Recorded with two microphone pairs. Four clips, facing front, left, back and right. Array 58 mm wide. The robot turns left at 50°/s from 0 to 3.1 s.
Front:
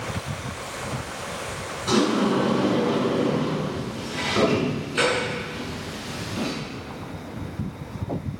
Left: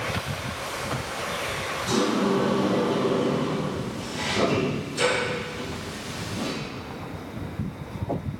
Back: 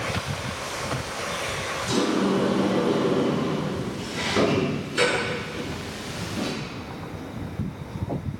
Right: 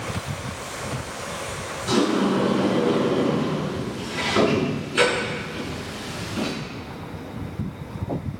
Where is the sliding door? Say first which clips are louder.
Right 3 dB, front 3 dB; 5° right, 8 m; by 6.5 s 65° right, 8 m.